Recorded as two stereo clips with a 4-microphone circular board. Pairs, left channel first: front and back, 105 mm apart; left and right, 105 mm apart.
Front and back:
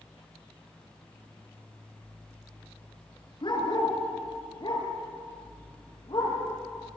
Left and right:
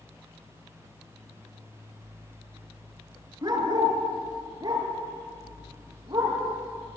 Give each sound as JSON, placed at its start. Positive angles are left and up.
{"t": 3.4, "sound": "a dog barking", "azimuth_deg": -45, "distance_m": 4.0}